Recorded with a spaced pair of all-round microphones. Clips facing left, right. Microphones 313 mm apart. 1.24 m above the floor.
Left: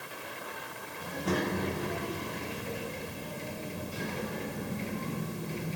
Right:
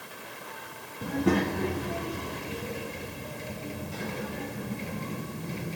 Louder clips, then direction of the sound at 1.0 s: Right 7 dB; 70° right (ahead or behind).